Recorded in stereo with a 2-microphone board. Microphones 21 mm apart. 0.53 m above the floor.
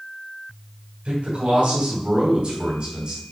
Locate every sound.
1.1 s a man speaking: 65° right (ahead or behind), 4 m; by 3.2 s 45° right (ahead or behind), 3 m